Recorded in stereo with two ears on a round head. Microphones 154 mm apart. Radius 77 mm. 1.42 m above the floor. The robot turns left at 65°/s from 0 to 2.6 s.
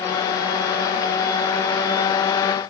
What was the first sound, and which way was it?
Only background noise.